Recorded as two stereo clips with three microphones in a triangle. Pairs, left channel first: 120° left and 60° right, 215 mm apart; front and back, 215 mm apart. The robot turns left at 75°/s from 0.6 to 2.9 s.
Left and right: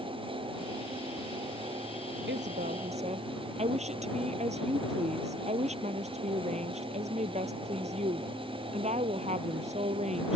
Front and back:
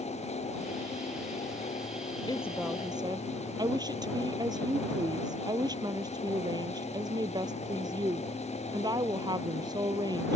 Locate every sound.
2.3 s a woman speaking: 65° right; by 10.3 s 115° right